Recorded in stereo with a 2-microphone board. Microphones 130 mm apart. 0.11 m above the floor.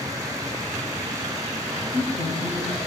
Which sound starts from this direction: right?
A woman speaking, at 1.7 s.